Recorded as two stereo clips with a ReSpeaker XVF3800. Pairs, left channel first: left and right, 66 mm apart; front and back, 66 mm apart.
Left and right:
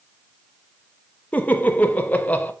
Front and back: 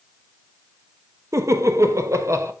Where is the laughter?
150° left, 1.0 m.